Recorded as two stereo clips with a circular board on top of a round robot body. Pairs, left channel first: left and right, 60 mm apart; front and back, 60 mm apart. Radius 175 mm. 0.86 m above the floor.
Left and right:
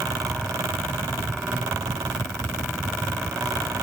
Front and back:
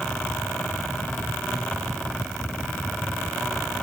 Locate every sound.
Only background noise.